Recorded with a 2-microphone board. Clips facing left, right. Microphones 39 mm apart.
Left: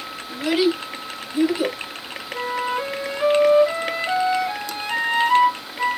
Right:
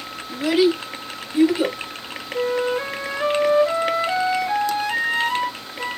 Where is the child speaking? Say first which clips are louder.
Right 2 dB; 20° left (ahead or behind), 1.0 m; by 1.8 s 35° right (ahead or behind), 1.1 m.